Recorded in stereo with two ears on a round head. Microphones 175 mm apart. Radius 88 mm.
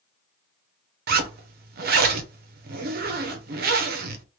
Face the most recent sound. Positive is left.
turn(degrees=-50)  # may be behind; listen again after turning